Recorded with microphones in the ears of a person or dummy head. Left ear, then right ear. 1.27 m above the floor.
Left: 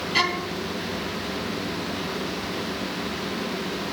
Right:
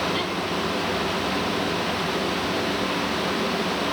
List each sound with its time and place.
0.1 s a violin: 60° left (ahead or behind)